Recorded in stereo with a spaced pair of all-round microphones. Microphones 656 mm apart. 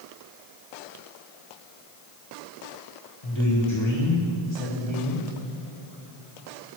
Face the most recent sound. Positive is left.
turn(degrees=45)  # may be behind; listen again after turning